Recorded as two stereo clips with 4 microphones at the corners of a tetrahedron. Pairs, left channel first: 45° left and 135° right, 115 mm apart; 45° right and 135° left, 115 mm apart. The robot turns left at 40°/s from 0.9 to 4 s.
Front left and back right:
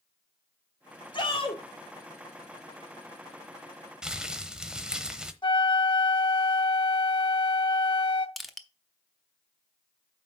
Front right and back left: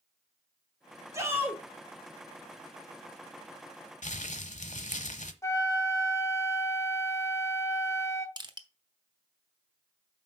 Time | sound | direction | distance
1.1 | a shout | 80° left | 2 m
4.0 | crumpling | 50° right | 0.9 m
5.4 | a flute | 10° left | 0.8 m
8.4 | crushing | 135° left | 0.8 m